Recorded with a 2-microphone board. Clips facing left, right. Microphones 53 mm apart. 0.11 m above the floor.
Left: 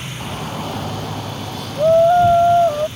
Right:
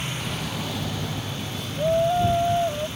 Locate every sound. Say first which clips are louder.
0.2 s a shout: left 4 dB; 40° left (ahead or behind); by 2.9 s 70° left (ahead or behind)